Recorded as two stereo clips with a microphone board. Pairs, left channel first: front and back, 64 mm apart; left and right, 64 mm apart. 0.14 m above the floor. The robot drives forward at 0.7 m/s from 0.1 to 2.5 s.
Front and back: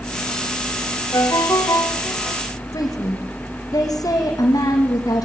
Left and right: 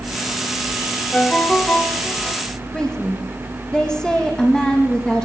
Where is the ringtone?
20° left, 5.5 m; by 2.4 s 25° left, 5 m.